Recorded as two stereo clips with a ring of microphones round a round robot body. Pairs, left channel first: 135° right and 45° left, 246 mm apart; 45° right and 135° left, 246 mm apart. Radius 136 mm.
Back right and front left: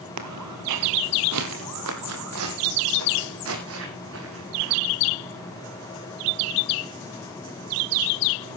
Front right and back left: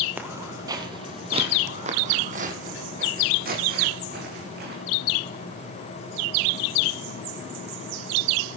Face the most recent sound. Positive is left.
turn(degrees=85)